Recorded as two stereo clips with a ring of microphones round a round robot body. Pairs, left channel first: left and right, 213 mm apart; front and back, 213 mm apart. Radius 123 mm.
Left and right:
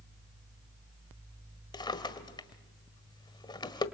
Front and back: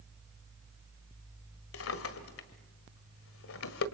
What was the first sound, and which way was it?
A drawer, 20° left.